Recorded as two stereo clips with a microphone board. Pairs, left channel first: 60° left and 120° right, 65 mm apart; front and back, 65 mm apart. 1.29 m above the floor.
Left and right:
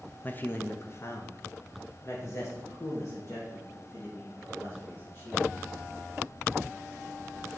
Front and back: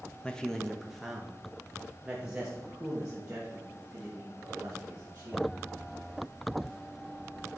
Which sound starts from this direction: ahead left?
A man speaking, at 0.2 s.